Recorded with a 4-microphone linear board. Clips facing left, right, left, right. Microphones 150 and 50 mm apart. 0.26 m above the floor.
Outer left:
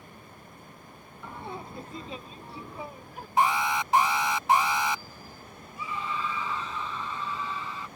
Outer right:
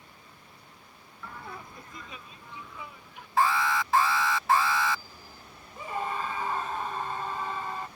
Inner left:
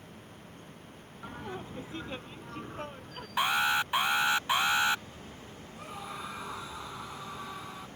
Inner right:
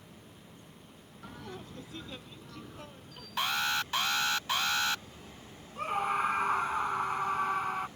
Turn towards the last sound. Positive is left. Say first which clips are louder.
# outer right 2 dB, inner right 11 dB
turn(degrees=-50)  # may be behind; listen again after turning